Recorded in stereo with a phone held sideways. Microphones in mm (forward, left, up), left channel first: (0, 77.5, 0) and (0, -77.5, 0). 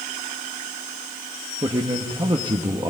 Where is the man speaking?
30° right (ahead or behind), 1.1 m.